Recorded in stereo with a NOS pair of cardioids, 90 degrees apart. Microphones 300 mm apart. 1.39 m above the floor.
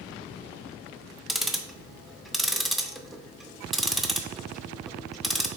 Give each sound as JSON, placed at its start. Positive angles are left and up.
{"t": 1.3, "sound": "ticking", "azimuth_deg": 0, "distance_m": 0.5}